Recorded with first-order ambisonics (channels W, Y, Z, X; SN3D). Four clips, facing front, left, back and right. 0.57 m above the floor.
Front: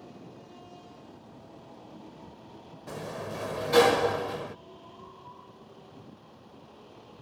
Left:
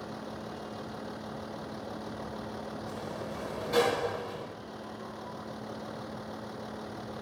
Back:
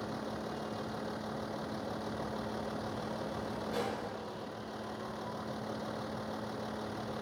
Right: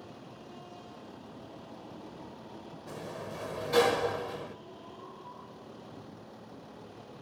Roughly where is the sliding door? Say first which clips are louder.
Left 3 dB, front 2 dB; ahead.